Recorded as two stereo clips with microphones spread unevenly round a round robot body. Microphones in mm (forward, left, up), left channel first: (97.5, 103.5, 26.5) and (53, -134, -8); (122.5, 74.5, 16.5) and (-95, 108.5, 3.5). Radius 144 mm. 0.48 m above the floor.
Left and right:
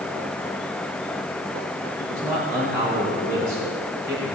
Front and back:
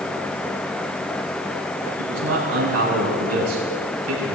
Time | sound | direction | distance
2.0 | a man speaking | straight behind | 4 m